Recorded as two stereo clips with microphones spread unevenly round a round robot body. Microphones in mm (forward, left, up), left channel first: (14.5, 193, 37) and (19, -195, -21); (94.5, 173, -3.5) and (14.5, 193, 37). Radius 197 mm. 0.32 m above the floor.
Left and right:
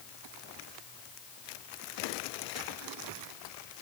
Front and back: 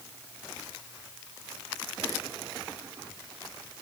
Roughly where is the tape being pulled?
I don't hear tape being pulled.